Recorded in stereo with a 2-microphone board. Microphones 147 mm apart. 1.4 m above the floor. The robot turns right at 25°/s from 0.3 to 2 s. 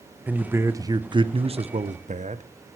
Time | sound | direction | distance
0.3 | a man speaking | 170° right | 0.8 m